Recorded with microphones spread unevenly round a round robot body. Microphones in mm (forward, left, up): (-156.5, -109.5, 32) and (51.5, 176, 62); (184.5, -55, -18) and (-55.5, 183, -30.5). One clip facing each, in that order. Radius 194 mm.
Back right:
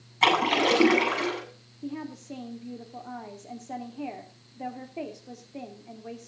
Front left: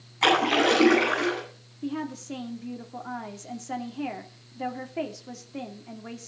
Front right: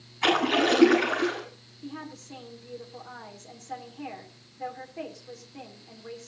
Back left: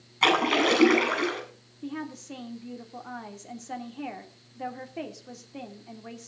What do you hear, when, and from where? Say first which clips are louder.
0.2 s a splash: front left 2 dB, front right 1 dB; 165° left, 8.5 m
1.8 s a woman speaking: front left 4 dB, back left 4 dB; 110° left, 2.5 m